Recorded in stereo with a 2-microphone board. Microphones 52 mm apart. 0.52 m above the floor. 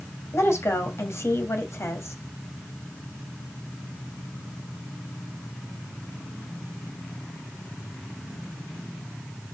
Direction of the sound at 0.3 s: 60° left (ahead or behind).